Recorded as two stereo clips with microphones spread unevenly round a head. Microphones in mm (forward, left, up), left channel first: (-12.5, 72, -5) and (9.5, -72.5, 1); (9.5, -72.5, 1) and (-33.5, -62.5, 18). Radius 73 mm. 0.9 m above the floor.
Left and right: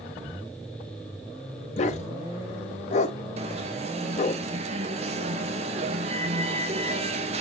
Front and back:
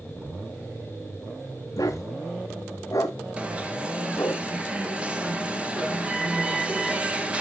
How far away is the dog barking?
About 1.4 m.